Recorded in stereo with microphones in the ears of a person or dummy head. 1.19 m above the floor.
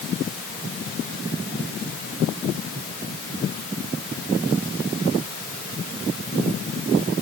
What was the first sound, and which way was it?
Only background noise.